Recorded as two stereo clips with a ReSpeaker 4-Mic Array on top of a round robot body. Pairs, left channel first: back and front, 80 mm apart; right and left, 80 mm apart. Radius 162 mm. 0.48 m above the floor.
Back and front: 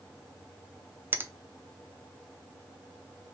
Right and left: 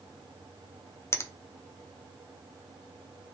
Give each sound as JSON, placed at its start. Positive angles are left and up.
{"t": 1.1, "sound": "a finger snap", "azimuth_deg": -50, "distance_m": 0.6}